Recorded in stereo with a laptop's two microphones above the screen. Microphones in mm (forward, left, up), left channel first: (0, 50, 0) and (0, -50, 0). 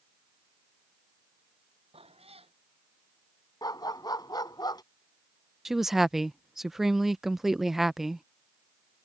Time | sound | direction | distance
1.9 | a cat meowing | 75° right (ahead or behind) | ?
3.6 | a dog barking | 45° left (ahead or behind) | ?
5.7 | a woman speaking | 5° right (ahead or behind) | ?